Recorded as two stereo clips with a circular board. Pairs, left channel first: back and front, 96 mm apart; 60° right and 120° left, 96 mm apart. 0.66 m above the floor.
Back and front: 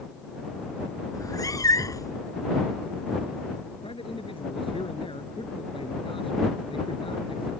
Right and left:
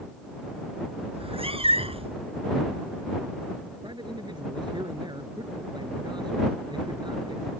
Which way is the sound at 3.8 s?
160° left.